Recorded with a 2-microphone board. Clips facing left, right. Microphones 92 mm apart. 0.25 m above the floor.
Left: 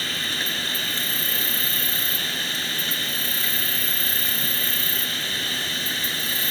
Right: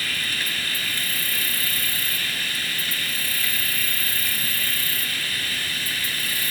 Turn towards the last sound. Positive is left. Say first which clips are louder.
# even
turn(degrees=25)  # may be behind; listen again after turning